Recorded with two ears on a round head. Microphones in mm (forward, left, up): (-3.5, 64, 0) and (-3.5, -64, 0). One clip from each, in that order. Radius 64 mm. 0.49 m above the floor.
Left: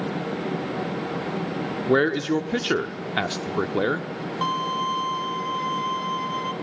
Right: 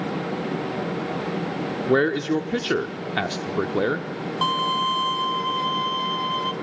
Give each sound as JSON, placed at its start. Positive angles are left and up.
{"t": 1.9, "sound": "a man speaking", "side_deg": 10, "distance_m": 0.7}
{"t": 4.4, "sound": "a violin", "side_deg": -15, "distance_m": 0.7}